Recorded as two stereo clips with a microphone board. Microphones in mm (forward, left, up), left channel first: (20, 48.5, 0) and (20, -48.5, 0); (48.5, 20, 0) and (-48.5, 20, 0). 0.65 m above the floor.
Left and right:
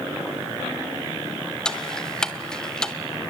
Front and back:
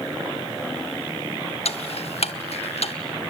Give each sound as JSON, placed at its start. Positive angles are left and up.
{"t": 1.6, "sound": "ticking", "azimuth_deg": 5, "distance_m": 1.0}